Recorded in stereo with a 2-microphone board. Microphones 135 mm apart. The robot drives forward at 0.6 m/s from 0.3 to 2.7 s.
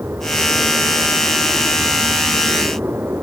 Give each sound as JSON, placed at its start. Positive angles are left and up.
{"t": 0.0, "sound": "an aircraft", "side_deg": -15}